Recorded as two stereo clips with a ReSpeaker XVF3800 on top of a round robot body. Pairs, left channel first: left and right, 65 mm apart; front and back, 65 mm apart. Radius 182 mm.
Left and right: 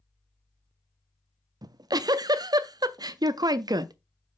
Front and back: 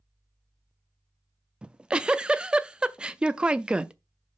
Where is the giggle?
105° right, 0.7 m.